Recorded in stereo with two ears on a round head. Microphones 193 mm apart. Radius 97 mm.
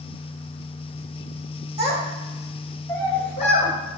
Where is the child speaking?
30° right (ahead or behind), 0.9 m; by 3.7 s 35° left (ahead or behind), 1.1 m.